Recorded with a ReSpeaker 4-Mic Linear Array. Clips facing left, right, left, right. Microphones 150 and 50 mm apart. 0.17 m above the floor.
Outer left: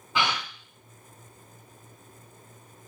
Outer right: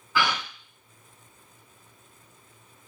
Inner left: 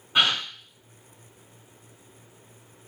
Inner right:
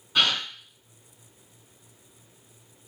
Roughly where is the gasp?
Left.